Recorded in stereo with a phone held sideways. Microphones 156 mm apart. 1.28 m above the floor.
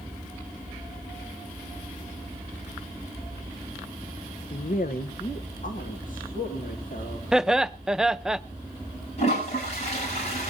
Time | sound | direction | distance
4.5 | a woman speaking | 60° left (ahead or behind) | 0.5 m
7.3 | laughter | 5° right (ahead or behind) | 0.5 m
9.2 | a toilet flushing | 45° left (ahead or behind) | 6.5 m